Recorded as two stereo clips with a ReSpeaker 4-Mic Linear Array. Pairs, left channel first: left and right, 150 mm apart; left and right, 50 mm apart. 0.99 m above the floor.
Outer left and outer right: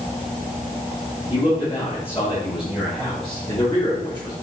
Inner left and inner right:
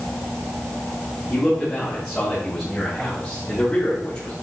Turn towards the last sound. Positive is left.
turn(degrees=30)  # may be behind; listen again after turning